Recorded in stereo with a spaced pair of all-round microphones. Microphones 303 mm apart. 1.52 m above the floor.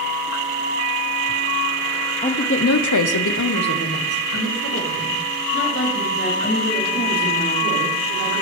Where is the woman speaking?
20° left (ahead or behind), 0.7 m; by 8.4 s 35° left (ahead or behind), 5.5 m.